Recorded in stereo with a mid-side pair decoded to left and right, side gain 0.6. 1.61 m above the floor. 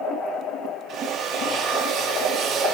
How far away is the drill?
About 8 m.